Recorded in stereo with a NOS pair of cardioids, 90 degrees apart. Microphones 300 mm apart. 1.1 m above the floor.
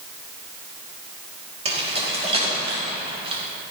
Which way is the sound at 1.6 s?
20° right.